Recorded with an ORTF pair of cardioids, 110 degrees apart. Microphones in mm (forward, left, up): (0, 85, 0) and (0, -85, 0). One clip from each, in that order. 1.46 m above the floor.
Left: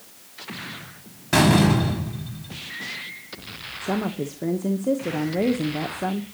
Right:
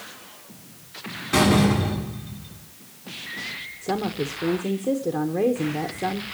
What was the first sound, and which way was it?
A door slam, 60° left.